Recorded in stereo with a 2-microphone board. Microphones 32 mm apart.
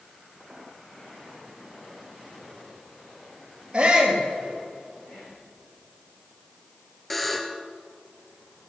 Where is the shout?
30° right (ahead or behind), 3 m.